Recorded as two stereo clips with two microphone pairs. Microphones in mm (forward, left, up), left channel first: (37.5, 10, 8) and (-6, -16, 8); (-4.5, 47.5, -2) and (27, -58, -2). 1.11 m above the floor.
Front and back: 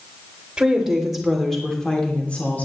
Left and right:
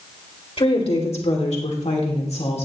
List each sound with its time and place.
0.6 s a woman speaking: 135° left, 3 m; by 2.6 s 85° left, 3 m